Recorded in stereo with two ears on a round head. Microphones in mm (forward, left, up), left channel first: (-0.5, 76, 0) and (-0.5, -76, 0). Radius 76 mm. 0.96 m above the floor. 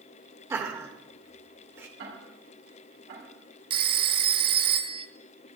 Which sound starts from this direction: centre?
Laughter, at 0.5 s.